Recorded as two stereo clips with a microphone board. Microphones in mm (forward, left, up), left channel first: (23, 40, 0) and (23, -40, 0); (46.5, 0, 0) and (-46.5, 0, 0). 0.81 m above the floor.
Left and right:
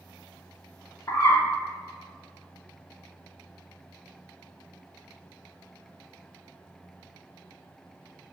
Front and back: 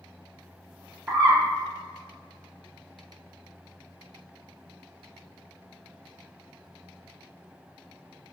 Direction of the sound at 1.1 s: 115° left.